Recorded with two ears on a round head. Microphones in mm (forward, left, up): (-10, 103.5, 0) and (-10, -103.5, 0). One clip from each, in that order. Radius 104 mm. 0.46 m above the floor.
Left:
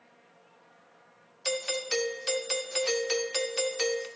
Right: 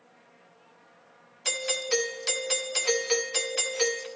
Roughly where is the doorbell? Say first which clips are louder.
Right 2 dB; centre.